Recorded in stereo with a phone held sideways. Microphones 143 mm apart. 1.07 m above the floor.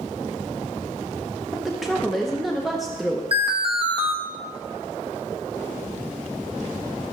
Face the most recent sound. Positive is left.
turn(degrees=-40)  # may be behind; listen again after turning